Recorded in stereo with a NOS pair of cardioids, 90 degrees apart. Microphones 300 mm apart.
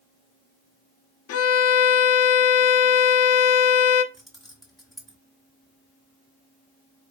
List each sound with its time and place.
1.3 s a violin: 60° left, 0.5 m
4.1 s keys jangling: straight ahead, 1.3 m